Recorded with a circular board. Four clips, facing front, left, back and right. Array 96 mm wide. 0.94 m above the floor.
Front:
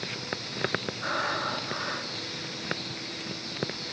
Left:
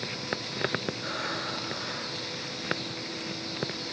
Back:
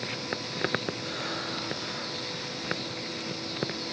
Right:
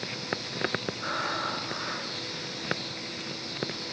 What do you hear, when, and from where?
1.0 s breathing: 35° right, 6 m